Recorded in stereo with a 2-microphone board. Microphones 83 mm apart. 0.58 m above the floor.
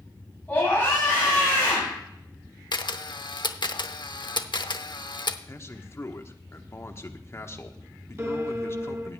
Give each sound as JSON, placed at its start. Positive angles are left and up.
{"t": 0.5, "sound": "a scream", "side_deg": 25, "distance_m": 3.5}
{"t": 2.7, "sound": "a camera shutter", "side_deg": 70, "distance_m": 0.7}
{"t": 5.5, "sound": "a man speaking", "side_deg": 35, "distance_m": 1.1}
{"t": 8.2, "sound": "a piano", "side_deg": -35, "distance_m": 1.7}